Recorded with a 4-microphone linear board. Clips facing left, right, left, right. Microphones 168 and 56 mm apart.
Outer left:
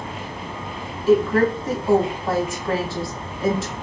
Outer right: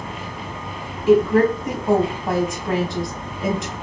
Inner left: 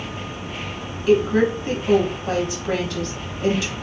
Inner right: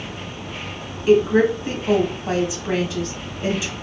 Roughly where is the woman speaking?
Centre.